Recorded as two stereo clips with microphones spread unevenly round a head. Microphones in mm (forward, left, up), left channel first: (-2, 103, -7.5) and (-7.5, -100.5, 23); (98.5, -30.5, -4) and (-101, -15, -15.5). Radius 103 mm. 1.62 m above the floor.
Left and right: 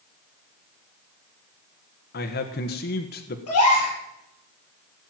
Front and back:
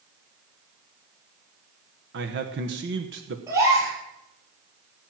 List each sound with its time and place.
2.1 s a man speaking: 135° left, 1.3 m
3.5 s a gasp: 100° left, 6.5 m